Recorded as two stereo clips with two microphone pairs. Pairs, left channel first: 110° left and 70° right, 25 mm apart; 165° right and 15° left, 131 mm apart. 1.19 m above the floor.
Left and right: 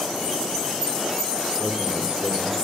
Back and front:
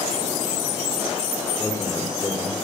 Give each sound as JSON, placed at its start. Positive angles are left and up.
{"t": 1.6, "sound": "a man speaking", "azimuth_deg": -100, "distance_m": 4.5}